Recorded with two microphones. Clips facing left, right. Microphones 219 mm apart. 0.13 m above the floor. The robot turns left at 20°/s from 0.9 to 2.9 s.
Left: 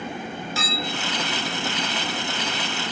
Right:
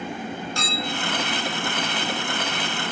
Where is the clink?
5° left (ahead or behind), 0.7 m.